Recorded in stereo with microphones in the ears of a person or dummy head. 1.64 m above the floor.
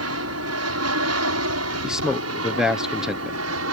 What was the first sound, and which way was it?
An aircraft, 75° right (ahead or behind).